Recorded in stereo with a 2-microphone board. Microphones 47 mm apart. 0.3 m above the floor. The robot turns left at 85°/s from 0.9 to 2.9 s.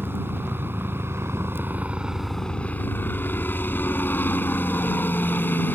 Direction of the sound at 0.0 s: 65° right.